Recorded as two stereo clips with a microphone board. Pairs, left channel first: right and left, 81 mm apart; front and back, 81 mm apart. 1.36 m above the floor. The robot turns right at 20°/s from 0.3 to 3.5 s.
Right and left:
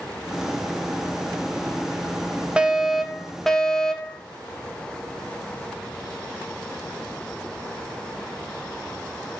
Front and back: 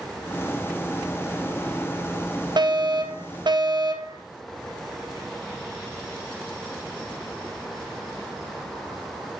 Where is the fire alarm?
165° left, 1.7 m; by 4.2 s 175° right, 1.7 m.